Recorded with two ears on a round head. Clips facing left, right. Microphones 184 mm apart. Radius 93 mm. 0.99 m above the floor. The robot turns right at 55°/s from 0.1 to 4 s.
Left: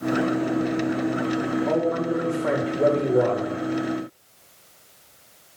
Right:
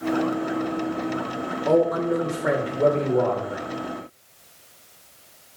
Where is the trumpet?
No trumpet in this recording.